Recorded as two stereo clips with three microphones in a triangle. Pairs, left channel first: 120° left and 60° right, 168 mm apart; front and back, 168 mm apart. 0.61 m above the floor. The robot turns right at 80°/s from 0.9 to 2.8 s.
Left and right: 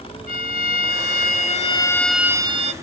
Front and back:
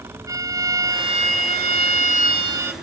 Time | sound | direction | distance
0.3 | a violin | 110° left | ?